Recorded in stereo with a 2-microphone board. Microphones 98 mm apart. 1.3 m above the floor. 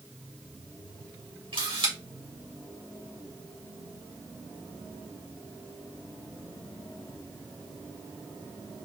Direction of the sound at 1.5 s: 60° right (ahead or behind).